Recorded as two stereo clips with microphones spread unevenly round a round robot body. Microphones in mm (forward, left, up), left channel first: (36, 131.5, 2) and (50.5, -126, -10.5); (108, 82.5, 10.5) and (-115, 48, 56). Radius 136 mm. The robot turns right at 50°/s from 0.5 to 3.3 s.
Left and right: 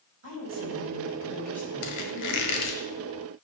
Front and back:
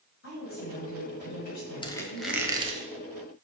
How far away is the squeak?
About 1.4 m.